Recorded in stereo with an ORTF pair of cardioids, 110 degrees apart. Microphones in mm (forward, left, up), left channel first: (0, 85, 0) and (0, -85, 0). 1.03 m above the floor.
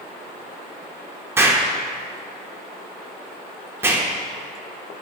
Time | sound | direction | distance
1.4 | an explosion | 15° right | 0.6 m